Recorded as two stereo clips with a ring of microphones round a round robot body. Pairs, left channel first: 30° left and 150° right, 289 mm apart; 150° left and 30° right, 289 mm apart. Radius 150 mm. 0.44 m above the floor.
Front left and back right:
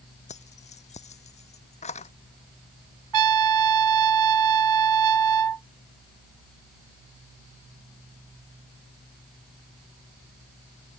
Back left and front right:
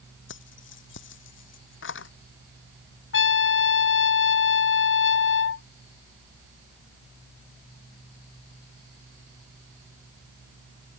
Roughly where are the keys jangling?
Left.